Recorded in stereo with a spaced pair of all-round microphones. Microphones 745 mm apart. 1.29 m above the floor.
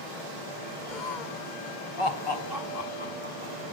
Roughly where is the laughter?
Left.